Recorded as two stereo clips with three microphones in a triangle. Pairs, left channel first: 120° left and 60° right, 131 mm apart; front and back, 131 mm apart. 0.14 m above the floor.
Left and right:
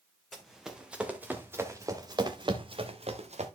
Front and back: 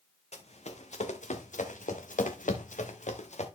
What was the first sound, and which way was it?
Running footsteps, 30° left.